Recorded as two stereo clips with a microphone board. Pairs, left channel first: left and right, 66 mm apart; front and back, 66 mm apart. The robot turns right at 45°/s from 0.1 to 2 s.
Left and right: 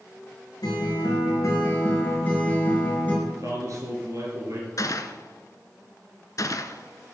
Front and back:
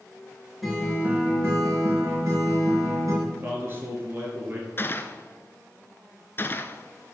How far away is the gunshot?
About 0.7 m.